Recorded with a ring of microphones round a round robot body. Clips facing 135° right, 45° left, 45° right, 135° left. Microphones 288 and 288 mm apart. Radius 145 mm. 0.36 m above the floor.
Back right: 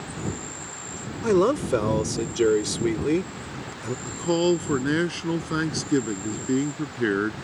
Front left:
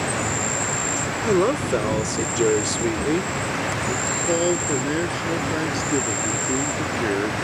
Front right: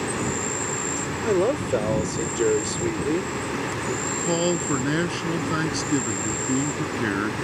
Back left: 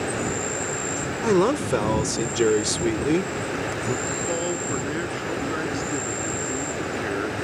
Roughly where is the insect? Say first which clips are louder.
Front left 6 dB, even; ahead left.